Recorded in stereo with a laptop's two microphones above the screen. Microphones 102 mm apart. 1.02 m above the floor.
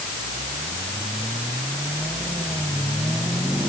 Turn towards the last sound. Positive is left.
No sound to turn to.